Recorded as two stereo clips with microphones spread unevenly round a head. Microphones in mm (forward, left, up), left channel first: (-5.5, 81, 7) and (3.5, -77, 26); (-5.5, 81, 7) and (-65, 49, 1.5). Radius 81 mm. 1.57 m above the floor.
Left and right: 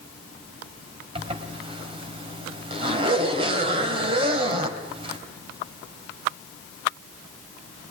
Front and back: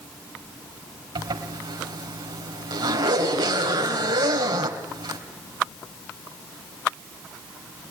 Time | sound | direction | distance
1.1 | a zipper | 140° right | 3 m